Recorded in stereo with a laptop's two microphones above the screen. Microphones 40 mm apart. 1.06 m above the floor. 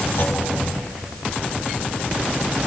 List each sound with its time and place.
0.2 s a clunk: 75° left (ahead or behind), 4 m